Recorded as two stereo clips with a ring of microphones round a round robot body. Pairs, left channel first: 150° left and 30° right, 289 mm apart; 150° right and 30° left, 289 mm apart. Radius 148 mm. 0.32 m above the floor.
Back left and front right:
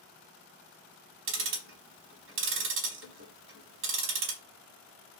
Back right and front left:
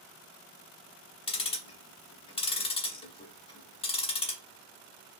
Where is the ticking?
80° right, 0.9 m.